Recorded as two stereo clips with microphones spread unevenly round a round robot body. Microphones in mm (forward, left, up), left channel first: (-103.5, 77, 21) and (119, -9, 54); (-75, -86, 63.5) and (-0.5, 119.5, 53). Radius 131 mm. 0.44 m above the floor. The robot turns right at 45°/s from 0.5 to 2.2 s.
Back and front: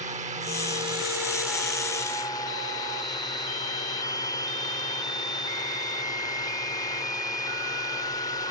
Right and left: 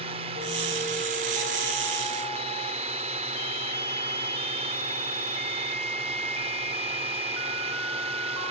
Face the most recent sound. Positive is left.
turn(degrees=105)